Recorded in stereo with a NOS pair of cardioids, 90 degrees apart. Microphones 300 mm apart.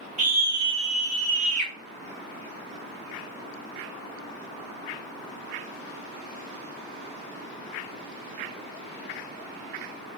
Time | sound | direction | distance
0.2 | a scream | 25° right | 1.3 m